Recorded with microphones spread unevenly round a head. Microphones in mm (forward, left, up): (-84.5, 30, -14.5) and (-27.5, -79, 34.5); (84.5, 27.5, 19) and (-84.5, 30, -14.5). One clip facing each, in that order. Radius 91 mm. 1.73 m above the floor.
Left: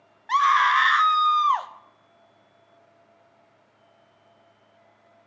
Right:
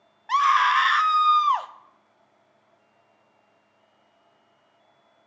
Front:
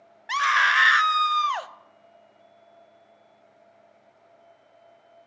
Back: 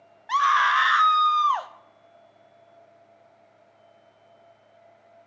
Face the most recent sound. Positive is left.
turn(degrees=-20)